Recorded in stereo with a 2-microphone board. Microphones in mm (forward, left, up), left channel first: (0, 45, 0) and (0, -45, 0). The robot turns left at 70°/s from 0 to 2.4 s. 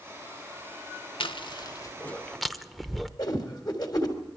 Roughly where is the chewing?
Left.